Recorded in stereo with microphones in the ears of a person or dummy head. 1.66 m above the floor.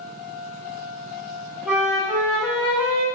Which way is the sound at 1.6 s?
10° right (ahead or behind).